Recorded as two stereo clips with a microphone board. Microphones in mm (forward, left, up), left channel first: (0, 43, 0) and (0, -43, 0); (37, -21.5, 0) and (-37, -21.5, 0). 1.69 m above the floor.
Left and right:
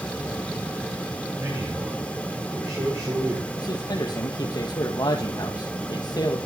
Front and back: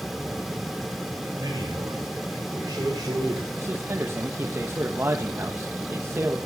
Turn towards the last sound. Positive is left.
turn(degrees=125)